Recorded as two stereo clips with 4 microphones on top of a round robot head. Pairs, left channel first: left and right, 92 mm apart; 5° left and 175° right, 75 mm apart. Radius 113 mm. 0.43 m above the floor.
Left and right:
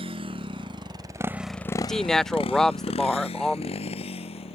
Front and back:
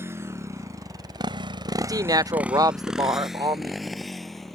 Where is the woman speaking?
175° left.